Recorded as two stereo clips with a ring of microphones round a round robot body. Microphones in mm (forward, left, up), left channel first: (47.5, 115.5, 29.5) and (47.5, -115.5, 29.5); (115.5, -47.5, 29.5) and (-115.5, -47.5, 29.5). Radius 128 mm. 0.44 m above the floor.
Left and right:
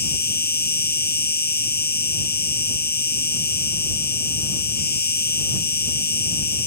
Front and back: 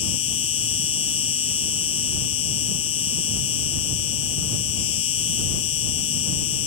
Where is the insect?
40° left.